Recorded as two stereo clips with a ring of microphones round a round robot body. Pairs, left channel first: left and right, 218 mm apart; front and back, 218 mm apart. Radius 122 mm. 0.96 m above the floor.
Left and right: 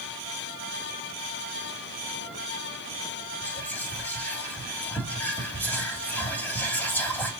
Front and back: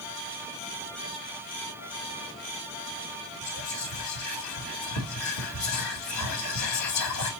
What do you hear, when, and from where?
3.4 s whispering: 5° left, 1.6 m